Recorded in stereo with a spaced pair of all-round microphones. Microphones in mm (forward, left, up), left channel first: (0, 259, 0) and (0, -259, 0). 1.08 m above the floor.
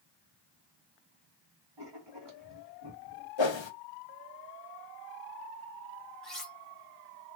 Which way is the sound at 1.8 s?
55° right (ahead or behind).